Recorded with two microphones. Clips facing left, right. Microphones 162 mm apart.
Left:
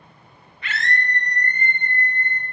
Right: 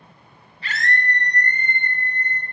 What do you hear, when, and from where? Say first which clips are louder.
0.6 s a scream: right 1 dB; 30° right (ahead or behind), 0.5 m; by 2.4 s 75° right (ahead or behind), 1.7 m